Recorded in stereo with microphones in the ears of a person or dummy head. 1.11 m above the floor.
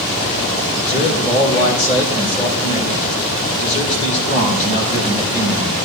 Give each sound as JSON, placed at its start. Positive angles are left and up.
{"t": 0.9, "sound": "a man speaking", "side_deg": 45, "distance_m": 4.0}